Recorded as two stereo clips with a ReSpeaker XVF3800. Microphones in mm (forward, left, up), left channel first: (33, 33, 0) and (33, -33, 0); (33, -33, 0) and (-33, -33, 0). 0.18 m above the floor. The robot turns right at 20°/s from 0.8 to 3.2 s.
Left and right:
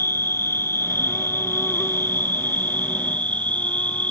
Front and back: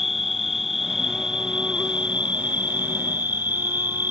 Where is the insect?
95° left; by 4.1 s 140° left.